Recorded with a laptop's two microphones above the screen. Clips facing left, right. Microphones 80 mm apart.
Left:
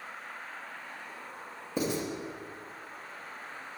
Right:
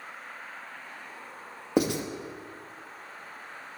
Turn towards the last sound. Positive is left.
turn(degrees=-70)  # may be behind; listen again after turning